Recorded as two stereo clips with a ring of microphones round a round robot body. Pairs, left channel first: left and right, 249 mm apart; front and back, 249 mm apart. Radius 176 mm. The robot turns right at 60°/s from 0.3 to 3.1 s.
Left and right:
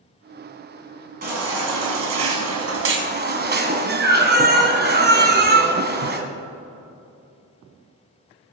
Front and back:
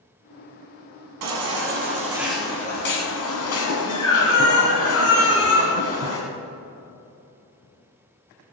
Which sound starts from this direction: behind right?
A baby crying, at 1.2 s.